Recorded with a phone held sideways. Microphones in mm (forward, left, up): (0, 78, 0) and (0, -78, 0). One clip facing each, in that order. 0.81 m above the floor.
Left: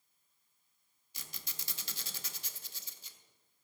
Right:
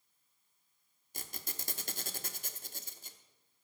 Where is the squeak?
50° right (ahead or behind), 0.8 m.